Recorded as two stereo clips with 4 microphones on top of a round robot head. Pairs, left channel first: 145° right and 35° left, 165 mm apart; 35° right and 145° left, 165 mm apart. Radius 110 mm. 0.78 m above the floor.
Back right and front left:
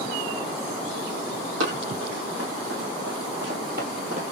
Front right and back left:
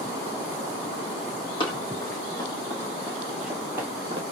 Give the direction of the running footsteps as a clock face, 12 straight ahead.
11 o'clock.